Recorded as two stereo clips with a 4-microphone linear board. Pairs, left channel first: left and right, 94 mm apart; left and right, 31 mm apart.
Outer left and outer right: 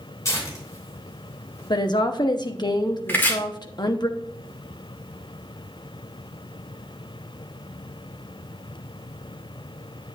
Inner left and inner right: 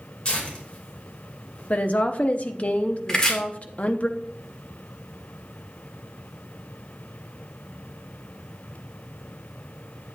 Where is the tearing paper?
35° left (ahead or behind), 3 m.